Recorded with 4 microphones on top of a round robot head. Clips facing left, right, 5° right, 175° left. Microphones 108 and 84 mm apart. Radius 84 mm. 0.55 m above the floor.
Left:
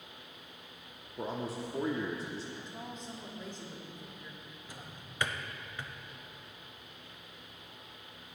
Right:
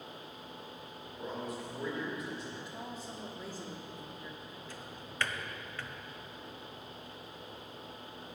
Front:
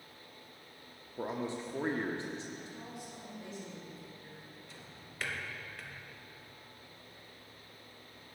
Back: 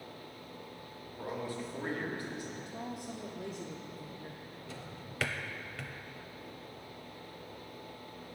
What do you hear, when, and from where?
1.2 s a man speaking: 50° left, 1.0 m
2.5 s a woman speaking: 170° right, 0.9 m
4.7 s a drawer: 165° left, 0.6 m